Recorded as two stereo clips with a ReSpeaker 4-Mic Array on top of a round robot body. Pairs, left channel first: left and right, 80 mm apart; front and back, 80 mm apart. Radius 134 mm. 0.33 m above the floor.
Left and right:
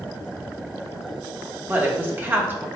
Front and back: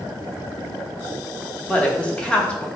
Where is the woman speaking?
60° right, 1.3 m.